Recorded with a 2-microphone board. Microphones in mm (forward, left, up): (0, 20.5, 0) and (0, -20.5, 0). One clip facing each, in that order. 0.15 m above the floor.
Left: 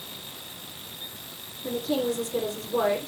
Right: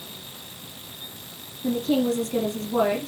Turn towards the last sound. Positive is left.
turn(degrees=-70)  # may be behind; listen again after turning